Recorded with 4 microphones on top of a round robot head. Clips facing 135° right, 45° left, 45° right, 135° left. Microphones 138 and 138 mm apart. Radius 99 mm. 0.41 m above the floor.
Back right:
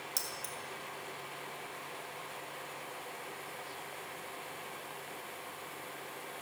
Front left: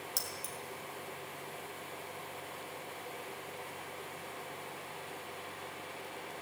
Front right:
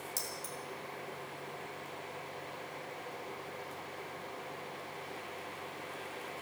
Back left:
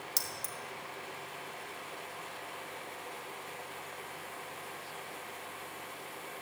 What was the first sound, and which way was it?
Keys jangling, 135° left.